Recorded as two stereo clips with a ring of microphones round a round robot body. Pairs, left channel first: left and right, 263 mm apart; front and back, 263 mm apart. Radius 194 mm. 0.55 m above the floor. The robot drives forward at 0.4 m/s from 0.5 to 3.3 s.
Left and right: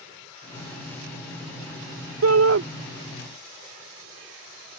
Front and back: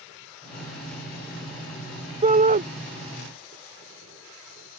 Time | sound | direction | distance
2.2 | a shout | 115° right | ?